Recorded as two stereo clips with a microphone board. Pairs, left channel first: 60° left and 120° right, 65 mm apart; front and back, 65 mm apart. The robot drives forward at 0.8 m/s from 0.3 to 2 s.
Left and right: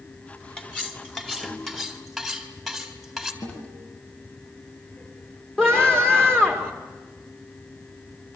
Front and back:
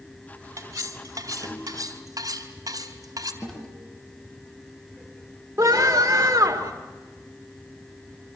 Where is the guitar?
65° left, 7 m.